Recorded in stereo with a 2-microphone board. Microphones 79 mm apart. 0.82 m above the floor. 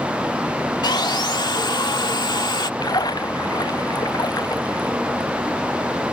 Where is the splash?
60° left (ahead or behind).